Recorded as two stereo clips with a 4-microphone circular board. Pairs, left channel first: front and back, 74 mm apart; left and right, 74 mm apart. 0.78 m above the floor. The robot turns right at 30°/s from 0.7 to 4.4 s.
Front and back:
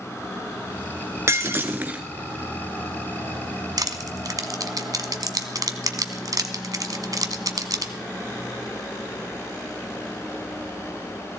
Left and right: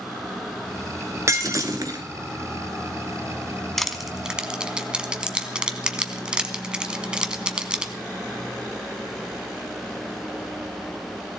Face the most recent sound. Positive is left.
turn(degrees=-165)